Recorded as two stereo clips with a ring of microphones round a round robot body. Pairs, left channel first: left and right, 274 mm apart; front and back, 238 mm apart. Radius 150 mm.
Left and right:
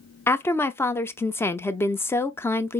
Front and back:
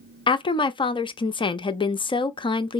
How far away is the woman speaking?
About 0.7 m.